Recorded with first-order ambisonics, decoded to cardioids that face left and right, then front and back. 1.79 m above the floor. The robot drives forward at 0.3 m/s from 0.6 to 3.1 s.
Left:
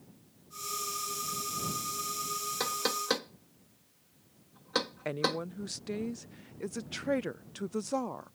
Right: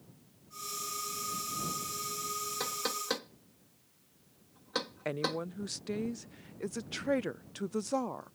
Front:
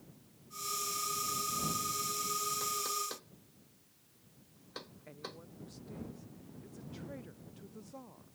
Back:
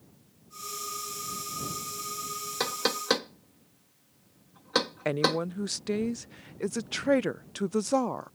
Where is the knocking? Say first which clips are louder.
Left 6 dB, back 7 dB; 165° left; by 5.4 s 170° left.